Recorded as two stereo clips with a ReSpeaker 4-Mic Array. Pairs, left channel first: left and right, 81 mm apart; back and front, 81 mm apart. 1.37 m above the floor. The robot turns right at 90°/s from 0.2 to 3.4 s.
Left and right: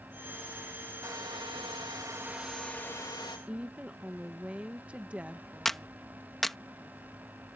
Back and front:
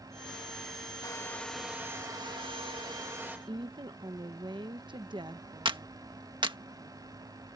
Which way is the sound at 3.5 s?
15° right.